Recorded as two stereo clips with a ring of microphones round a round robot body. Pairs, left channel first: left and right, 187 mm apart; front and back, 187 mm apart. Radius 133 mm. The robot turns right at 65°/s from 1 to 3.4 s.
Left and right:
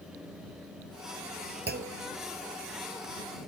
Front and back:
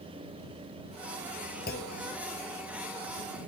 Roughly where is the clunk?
Ahead right.